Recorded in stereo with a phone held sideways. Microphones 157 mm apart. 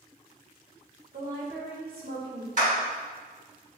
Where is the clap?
55° right (ahead or behind), 1.7 m.